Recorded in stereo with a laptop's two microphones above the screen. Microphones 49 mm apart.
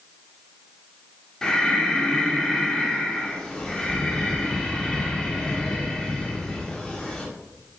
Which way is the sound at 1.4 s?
15° left (ahead or behind).